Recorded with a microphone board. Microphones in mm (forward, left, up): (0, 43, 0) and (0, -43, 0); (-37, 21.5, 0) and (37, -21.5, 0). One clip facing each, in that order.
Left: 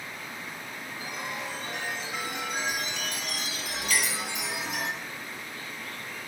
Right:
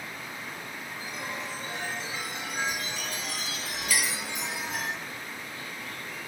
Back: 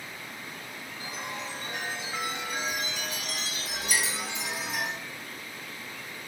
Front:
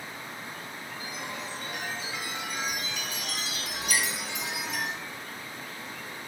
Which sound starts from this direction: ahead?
A clink, at 3.9 s.